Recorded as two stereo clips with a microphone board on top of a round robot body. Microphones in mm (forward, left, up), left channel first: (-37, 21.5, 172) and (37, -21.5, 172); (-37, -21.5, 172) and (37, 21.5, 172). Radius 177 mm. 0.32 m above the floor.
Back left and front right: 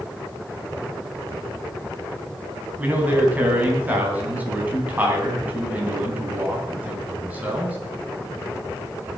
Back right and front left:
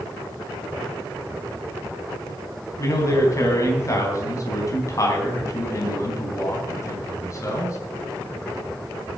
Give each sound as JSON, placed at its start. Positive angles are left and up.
{"t": 2.8, "sound": "a man speaking", "azimuth_deg": -100, "distance_m": 4.0}